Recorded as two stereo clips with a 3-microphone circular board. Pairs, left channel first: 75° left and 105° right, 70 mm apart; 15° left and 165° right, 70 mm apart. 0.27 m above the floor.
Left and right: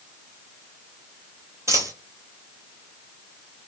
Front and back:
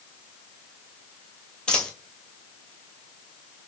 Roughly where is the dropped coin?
Ahead right.